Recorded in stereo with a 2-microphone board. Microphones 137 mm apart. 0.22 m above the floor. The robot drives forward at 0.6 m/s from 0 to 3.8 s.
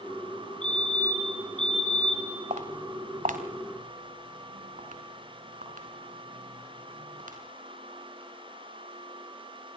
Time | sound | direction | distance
0.6 | a fire alarm | 55° left (ahead or behind) | 5 m
2.5 | footsteps | 65° right (ahead or behind) | 3 m